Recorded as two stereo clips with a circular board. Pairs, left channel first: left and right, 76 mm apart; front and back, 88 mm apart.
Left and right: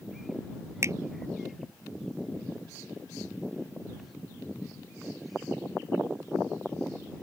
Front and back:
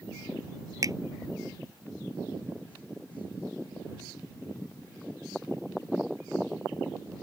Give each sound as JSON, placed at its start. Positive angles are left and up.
{"t": 0.8, "sound": "a finger snap", "azimuth_deg": -135}